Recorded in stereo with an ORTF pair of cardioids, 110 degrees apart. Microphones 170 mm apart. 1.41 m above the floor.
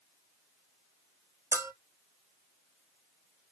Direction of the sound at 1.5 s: 15° right.